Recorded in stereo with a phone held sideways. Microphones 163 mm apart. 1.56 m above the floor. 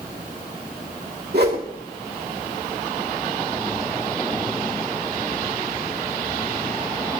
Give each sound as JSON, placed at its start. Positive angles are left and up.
{"t": 1.3, "sound": "a whoosh", "side_deg": -85, "distance_m": 2.0}